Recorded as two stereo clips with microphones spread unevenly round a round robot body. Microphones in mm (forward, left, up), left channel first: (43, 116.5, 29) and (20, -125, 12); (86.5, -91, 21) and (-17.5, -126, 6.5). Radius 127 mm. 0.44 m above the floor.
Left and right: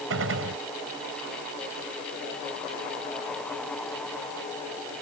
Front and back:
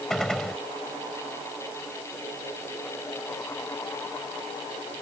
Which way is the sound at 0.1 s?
70° right.